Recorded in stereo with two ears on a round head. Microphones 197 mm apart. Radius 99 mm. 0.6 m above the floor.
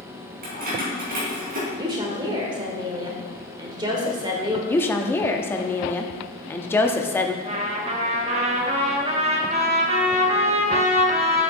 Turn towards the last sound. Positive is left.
turn(degrees=-30)  # may be behind; listen again after turning